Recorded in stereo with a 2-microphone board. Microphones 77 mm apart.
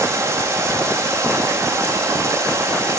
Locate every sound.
0.0 s running water: 40° right (ahead or behind), 5.5 m